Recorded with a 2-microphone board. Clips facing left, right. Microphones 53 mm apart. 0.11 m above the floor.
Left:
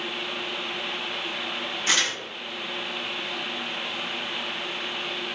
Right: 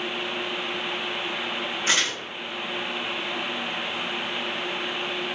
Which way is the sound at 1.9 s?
25° right (ahead or behind).